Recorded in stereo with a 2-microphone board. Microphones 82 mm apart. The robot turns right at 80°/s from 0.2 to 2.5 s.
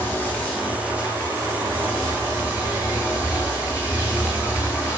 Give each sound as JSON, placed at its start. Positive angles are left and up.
{"t": 0.0, "sound": "running water", "azimuth_deg": 145, "distance_m": 1.1}